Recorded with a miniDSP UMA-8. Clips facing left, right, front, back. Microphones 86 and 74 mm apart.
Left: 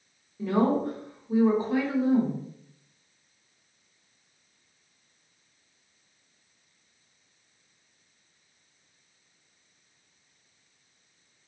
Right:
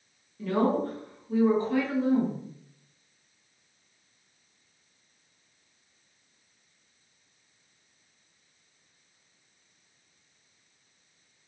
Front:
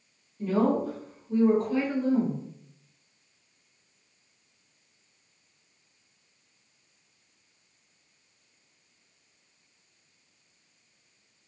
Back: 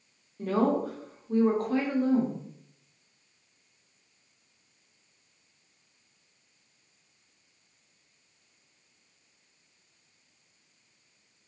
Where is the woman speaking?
160° left, 1.0 m.